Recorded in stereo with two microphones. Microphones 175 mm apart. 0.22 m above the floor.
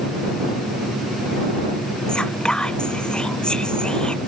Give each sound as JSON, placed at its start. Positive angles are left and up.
{"t": 2.1, "sound": "whispering", "side_deg": 5}